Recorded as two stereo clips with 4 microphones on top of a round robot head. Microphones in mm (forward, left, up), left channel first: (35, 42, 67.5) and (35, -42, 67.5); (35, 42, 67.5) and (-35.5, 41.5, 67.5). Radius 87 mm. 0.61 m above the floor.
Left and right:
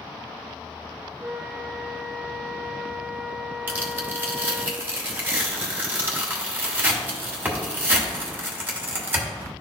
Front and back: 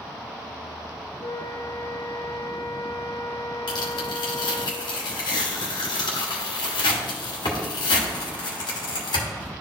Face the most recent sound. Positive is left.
turn(degrees=-25)